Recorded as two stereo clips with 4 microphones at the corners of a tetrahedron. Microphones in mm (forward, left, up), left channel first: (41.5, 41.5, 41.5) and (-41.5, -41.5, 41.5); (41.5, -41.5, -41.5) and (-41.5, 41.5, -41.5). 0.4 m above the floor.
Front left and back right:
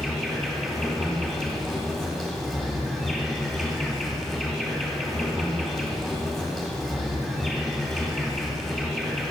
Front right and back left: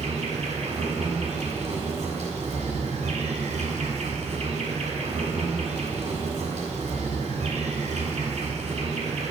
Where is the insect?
130° left, 1.6 m.